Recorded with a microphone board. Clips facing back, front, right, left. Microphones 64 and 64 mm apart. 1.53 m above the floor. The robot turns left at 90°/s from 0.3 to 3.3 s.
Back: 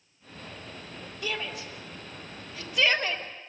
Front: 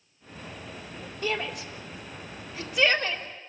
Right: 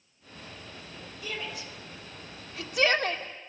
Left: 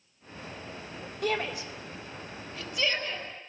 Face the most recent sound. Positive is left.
turn(degrees=-130)